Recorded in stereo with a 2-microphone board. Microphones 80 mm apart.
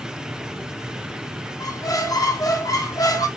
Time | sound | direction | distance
1.6 | a squeak | 50° left (ahead or behind) | 0.5 m